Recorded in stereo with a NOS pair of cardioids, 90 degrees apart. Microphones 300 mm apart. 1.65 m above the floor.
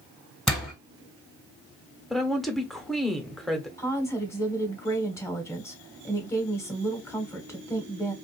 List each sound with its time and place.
0.5 s a door slam: straight ahead, 1.4 m
2.1 s a woman speaking: straight ahead, 1.1 m
3.8 s a woman speaking: 10° left, 1.3 m